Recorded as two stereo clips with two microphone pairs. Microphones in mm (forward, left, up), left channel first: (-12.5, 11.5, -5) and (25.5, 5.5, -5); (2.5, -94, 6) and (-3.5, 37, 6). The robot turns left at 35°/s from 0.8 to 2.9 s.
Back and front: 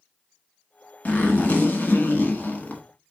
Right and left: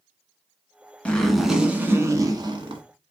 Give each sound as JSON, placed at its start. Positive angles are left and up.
{"t": 1.1, "sound": "a zipper", "azimuth_deg": -165, "distance_m": 0.9}